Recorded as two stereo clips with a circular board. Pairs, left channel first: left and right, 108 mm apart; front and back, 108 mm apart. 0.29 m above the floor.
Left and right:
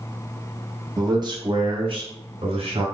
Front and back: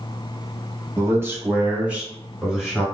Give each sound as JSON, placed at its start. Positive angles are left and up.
{"t": 1.0, "sound": "a man speaking", "azimuth_deg": -125, "distance_m": 1.3}